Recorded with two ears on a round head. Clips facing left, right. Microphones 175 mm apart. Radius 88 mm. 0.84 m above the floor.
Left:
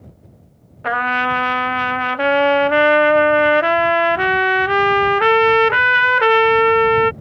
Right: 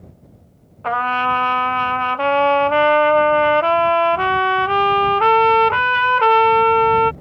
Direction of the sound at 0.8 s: 15° left (ahead or behind).